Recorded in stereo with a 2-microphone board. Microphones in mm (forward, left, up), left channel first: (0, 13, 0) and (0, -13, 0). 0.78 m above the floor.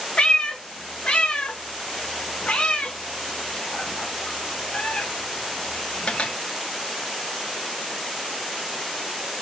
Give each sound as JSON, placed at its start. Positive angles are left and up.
{"t": 0.2, "sound": "a cat meowing", "side_deg": 50, "distance_m": 0.6}